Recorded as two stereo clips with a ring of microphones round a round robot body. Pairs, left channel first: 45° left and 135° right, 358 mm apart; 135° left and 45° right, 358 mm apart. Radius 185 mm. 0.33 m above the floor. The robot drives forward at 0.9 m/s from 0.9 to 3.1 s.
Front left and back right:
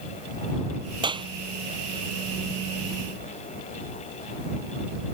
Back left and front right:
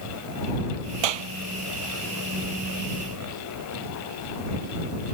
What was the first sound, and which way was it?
A clap, 55° right.